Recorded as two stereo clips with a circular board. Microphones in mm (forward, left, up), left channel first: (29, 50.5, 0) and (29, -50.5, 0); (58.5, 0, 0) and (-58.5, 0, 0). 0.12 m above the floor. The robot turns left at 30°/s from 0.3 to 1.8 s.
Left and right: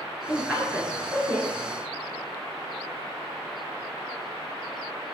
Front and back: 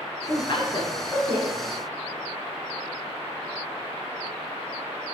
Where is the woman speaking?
15° right, 1.5 m; by 1.5 s 50° right, 1.5 m.